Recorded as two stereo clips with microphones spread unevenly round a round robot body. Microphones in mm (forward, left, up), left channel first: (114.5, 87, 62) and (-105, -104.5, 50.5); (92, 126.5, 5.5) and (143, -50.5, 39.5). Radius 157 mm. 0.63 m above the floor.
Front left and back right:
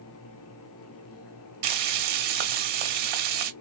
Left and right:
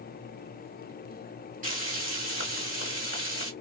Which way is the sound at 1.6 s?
135° right.